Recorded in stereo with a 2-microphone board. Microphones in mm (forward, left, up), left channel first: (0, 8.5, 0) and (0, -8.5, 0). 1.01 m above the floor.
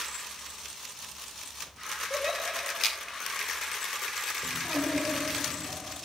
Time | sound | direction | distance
2.1 | a giggle | 15° right (ahead or behind) | 7.5 m
4.4 | a child speaking | 10° left (ahead or behind) | 6.5 m